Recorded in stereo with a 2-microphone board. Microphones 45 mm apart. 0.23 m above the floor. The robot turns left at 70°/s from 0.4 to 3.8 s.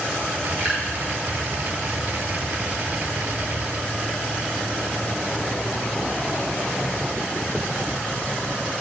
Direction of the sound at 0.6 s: 45° right (ahead or behind).